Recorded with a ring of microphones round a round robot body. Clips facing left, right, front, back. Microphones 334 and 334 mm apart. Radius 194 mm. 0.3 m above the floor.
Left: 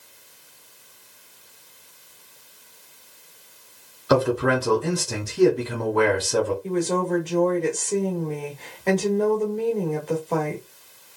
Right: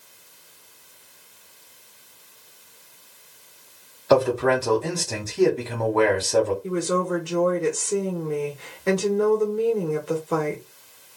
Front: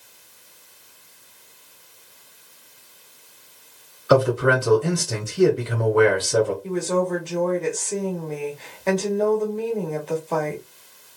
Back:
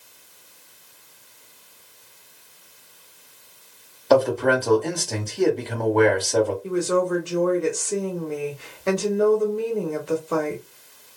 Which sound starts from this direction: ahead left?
A man speaking, at 4.1 s.